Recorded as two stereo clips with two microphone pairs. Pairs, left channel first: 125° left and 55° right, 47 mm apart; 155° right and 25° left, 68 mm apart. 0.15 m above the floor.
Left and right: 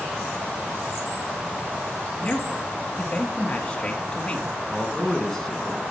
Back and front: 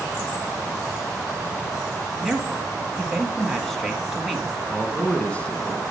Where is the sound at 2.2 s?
120° left, 1.3 m.